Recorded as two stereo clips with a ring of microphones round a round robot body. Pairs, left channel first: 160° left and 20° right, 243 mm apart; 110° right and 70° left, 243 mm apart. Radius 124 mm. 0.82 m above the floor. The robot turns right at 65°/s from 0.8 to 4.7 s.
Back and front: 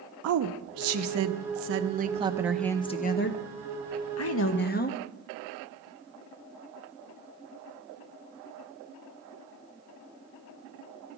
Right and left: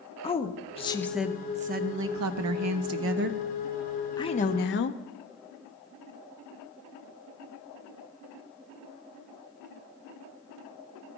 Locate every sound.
0.2 s a woman speaking: 45° right, 0.7 m; by 5.0 s 150° right, 0.7 m